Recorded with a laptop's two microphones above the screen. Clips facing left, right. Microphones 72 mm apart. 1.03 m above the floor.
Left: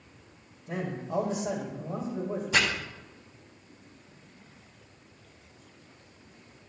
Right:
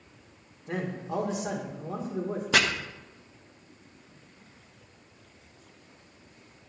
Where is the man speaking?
80° right, 2.5 m.